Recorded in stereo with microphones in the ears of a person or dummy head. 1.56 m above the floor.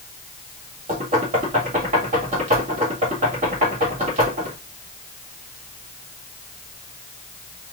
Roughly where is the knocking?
Right.